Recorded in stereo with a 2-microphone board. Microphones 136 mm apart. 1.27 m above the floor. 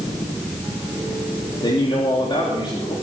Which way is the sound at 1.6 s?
35° left (ahead or behind).